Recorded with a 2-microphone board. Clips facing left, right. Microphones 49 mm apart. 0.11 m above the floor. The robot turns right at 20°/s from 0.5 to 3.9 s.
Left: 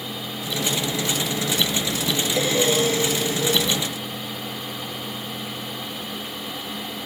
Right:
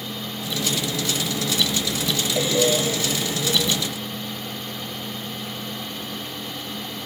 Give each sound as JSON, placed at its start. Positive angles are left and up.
{"t": 2.3, "sound": "breathing", "side_deg": 45, "distance_m": 1.7}